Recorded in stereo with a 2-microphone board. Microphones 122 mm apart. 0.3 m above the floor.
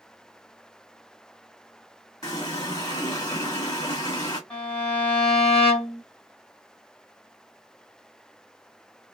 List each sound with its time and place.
2.2 s a running tap: 30° left (ahead or behind), 1.4 m
4.5 s a violin: 10° left (ahead or behind), 1.6 m